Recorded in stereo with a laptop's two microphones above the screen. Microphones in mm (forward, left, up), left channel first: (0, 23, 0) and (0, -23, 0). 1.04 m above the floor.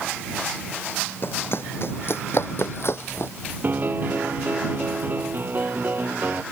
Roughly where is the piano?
Right.